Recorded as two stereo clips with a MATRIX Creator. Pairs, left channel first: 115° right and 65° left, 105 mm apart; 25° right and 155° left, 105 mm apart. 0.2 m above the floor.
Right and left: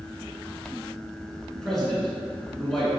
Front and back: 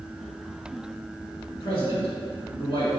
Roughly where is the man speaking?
Ahead right.